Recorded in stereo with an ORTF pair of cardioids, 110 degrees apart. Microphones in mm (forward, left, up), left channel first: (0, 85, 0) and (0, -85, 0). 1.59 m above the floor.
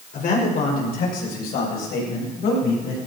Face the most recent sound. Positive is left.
turn(degrees=75)